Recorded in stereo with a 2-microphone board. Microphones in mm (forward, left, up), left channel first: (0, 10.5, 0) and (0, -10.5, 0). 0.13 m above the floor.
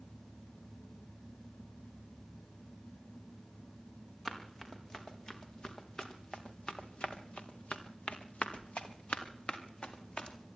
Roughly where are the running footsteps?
Left.